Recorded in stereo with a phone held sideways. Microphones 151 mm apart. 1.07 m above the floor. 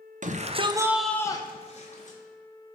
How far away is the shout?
About 0.7 m.